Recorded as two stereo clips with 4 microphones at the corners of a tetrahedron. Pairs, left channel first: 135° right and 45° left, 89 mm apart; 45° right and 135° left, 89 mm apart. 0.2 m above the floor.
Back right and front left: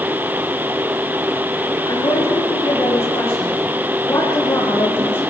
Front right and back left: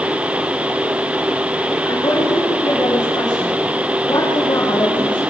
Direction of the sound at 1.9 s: 95° right.